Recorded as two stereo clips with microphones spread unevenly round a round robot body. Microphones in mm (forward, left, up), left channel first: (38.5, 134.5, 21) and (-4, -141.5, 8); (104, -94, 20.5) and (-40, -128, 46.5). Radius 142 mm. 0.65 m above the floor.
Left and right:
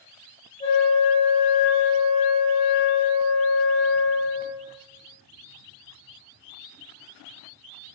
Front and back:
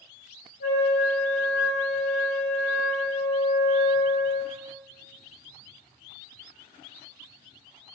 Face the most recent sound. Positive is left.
turn(degrees=15)